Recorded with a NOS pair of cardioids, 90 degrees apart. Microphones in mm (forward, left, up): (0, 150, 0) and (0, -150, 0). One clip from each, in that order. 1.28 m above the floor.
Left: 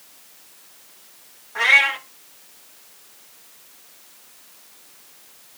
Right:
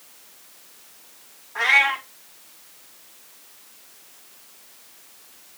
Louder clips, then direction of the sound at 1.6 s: Left 2 dB; 20° left.